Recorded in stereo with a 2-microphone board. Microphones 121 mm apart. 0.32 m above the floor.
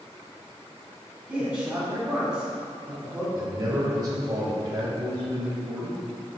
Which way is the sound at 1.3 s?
10° right (ahead or behind).